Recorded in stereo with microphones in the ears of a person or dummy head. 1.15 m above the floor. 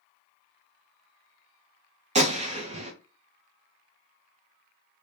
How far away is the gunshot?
About 0.5 m.